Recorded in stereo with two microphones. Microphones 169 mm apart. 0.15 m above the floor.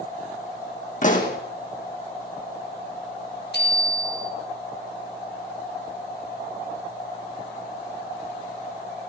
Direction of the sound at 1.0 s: 50° left (ahead or behind).